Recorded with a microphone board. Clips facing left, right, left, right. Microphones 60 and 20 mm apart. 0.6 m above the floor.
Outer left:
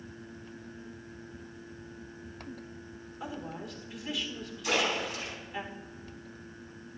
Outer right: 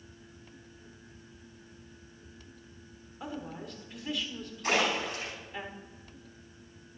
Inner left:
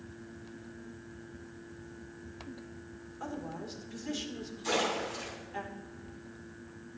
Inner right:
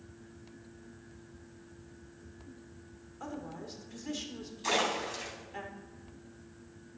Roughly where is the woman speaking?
Centre.